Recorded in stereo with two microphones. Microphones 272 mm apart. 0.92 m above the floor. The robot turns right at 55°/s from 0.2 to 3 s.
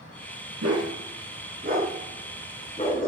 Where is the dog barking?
75° right (ahead or behind), 2.5 m; by 3.1 s 30° left (ahead or behind), 2.5 m.